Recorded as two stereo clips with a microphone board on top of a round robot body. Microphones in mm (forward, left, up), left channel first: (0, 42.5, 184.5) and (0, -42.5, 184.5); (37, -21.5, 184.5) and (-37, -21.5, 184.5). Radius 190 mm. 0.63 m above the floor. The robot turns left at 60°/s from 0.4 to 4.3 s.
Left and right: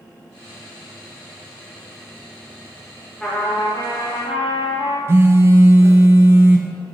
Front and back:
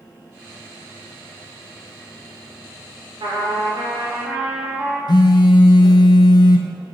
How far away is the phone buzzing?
About 0.5 m.